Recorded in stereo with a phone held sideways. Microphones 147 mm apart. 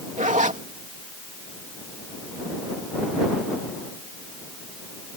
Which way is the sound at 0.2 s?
55° right (ahead or behind).